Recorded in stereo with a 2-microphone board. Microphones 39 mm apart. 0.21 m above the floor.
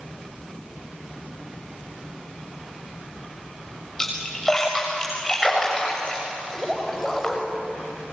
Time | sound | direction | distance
4.0 | a splash | 15° left (ahead or behind) | 7 m